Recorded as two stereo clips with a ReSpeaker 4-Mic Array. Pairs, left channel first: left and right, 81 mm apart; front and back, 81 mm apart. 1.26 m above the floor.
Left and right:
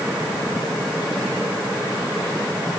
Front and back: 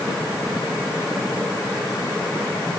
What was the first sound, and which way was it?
Only background noise.